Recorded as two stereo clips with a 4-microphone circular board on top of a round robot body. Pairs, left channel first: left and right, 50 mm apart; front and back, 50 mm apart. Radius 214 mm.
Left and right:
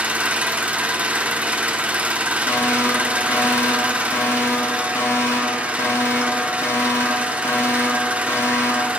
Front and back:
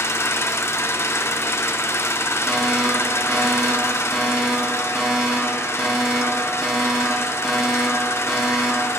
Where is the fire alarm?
90° left, 5.5 m.